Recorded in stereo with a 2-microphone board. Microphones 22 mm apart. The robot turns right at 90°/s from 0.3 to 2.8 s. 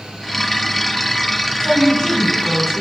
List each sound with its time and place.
1.6 s a woman speaking: 105° left, 1.8 m; by 2.8 s 145° right, 1.8 m